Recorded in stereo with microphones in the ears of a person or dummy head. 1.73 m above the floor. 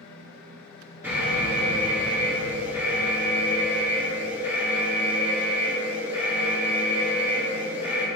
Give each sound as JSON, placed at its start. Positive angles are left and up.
{"t": 0.0, "sound": "a fan", "side_deg": 60, "distance_m": 0.9}
{"t": 1.0, "sound": "an alarm", "side_deg": -10, "distance_m": 2.0}